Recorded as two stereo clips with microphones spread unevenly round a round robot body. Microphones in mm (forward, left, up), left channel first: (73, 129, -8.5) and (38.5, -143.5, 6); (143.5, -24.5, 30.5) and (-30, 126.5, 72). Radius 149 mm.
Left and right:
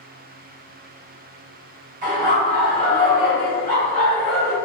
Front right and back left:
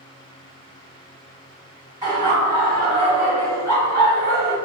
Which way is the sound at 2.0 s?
140° right.